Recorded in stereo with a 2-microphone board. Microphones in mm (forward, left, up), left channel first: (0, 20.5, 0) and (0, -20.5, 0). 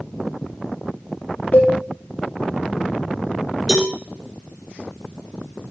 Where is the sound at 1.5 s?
40° left (ahead or behind), 4 m.